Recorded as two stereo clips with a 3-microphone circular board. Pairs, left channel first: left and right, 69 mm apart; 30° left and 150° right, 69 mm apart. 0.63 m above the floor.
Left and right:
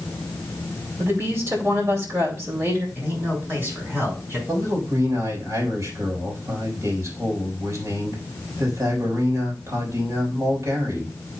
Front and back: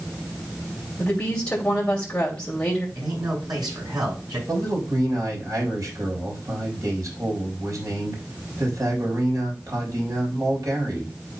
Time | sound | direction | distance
1.0 | a woman speaking | 45° right | 2.5 m
3.0 | a man speaking | 150° right | 5.5 m
4.5 | a man speaking | 125° right | 3.5 m